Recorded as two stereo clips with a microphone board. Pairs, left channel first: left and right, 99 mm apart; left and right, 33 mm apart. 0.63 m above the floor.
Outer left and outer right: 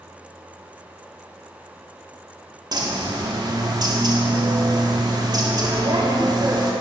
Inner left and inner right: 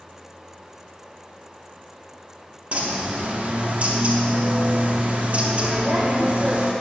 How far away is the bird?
About 1.0 m.